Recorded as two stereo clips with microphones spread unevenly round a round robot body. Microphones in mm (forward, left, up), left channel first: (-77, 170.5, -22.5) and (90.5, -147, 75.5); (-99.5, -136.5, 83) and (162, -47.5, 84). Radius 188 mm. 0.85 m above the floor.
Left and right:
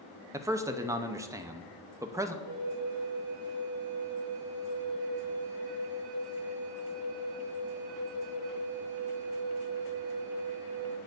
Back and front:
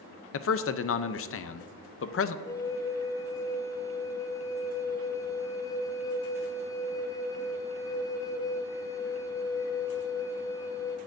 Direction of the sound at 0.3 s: 155° right.